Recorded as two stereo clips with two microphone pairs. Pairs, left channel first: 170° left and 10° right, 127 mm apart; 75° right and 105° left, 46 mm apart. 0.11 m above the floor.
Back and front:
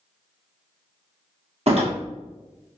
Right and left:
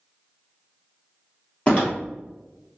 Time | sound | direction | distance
1.7 | a door slam | 20° right | 2.0 m